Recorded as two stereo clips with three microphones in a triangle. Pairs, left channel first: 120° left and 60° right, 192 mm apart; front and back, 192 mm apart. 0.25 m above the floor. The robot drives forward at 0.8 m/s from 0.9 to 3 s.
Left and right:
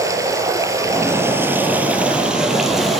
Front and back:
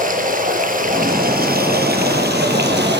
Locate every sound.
0.0 s running water: 135° right, 3 m; by 3.0 s 150° right, 4.5 m